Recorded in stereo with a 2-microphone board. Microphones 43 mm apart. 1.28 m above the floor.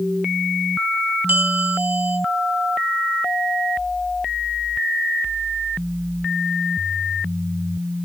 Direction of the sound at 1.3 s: 50° right (ahead or behind).